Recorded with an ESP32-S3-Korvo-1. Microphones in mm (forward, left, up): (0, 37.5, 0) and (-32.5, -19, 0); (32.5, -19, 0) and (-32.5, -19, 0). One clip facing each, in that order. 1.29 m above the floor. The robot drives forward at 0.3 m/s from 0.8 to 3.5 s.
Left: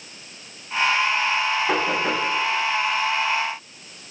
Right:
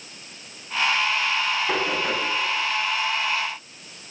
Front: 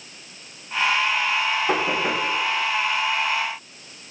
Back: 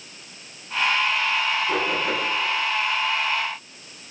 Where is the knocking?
20° right, 9.5 m.